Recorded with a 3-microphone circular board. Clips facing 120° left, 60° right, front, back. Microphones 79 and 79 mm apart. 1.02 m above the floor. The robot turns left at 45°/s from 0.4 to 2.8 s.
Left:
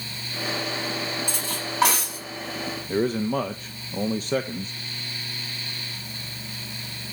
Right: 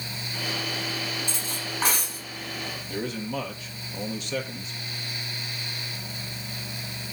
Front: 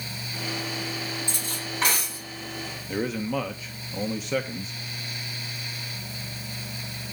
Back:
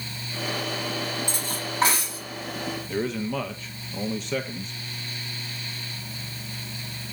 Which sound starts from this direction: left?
A man speaking, at 2.9 s.